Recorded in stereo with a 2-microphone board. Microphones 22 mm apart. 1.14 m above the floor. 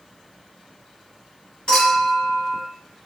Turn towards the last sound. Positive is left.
turn(degrees=35)  # may be behind; listen again after turning